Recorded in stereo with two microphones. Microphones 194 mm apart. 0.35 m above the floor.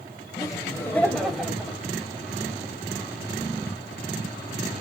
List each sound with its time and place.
0.4 s laughter: 20° left (ahead or behind), 1.8 m; by 1.8 s 10° right (ahead or behind), 1.7 m